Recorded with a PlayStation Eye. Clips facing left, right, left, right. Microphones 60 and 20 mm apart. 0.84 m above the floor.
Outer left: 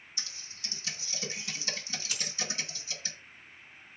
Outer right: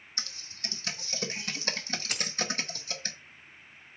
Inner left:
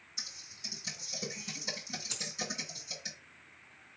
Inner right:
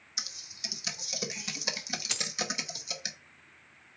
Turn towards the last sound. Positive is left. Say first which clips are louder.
# outer right 3 dB, inner right 7 dB
turn(degrees=-55)  # may be behind; listen again after turning